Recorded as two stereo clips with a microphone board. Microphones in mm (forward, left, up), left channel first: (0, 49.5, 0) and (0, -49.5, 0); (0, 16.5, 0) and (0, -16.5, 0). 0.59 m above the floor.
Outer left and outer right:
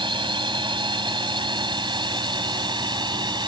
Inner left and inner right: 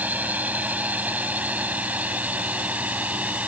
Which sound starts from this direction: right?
A drone, at 0.0 s.